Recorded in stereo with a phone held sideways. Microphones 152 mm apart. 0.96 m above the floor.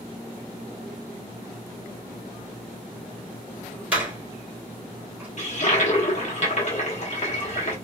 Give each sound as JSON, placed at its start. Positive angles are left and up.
{"t": 3.9, "sound": "a door slam", "side_deg": -10, "distance_m": 2.5}
{"t": 5.4, "sound": "a toilet flushing", "side_deg": 50, "distance_m": 1.1}